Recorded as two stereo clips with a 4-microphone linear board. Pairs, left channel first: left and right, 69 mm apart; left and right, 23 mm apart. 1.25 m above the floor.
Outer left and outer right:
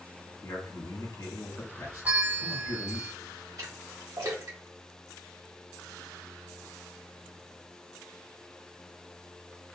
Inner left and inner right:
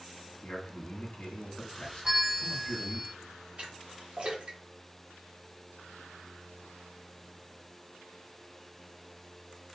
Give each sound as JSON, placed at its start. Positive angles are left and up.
{"t": 0.4, "sound": "a man speaking", "side_deg": 60, "distance_m": 2.0}
{"t": 2.0, "sound": "a bell", "side_deg": -25, "distance_m": 0.9}
{"t": 3.6, "sound": "a splash", "side_deg": -55, "distance_m": 2.0}